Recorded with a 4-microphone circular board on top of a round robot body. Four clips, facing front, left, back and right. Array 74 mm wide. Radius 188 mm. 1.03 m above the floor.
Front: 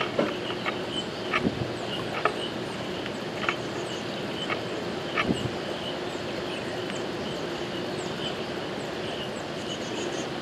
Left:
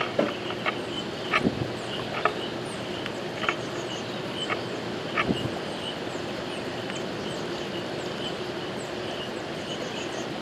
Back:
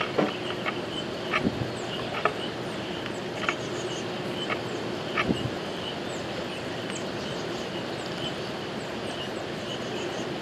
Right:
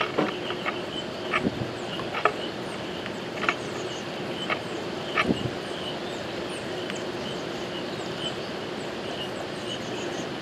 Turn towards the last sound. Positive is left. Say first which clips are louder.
# left 1 dB, back 1 dB
turn(degrees=-115)